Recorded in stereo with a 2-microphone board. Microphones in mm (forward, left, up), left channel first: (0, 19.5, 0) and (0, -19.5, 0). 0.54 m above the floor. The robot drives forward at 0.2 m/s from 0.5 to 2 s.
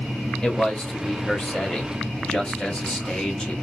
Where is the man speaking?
25° left (ahead or behind), 1.3 m; by 3.5 s 20° left (ahead or behind), 1.4 m.